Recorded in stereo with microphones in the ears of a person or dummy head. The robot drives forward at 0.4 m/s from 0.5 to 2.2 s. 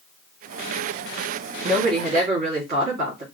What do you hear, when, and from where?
1.6 s a woman speaking: 55° right (ahead or behind), 1.3 m; by 3.2 s 45° right (ahead or behind), 1.4 m